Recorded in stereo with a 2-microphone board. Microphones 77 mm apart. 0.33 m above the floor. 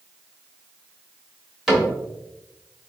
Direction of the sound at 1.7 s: Centre (ahead or behind).